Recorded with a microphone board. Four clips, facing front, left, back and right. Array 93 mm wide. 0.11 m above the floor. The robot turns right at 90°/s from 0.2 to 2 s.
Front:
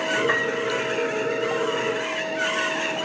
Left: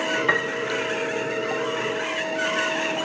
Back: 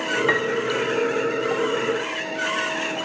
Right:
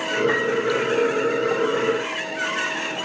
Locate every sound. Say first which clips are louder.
0.3 s a piano: right 3 dB, back 2 dB; 145° left, 1.2 m; by 0.6 s 175° left, 1.2 m